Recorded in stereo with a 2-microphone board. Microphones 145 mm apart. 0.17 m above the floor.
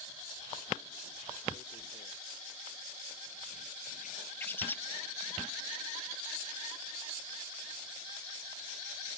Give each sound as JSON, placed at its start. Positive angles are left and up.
{"t": 1.5, "sound": "tearing paper", "side_deg": 65}
{"t": 4.4, "sound": "a bird", "side_deg": 15}